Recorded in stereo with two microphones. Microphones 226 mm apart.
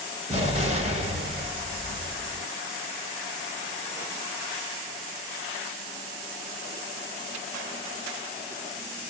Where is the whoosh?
No whoosh in this recording.